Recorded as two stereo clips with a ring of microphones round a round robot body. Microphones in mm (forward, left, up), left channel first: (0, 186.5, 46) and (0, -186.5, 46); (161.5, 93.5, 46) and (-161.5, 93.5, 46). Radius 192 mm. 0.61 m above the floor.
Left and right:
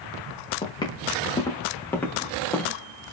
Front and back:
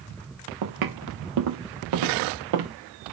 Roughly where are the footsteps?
Behind.